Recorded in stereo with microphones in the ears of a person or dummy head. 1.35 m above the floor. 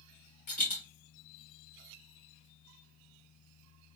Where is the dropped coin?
40° left (ahead or behind), 1.6 m.